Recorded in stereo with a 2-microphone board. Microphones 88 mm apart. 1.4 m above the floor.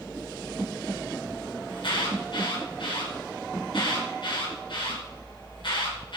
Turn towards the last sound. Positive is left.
turn(degrees=75)  # may be behind; listen again after turning